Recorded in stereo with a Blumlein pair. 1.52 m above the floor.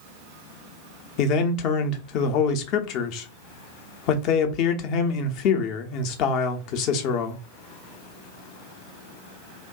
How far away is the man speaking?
About 0.6 m.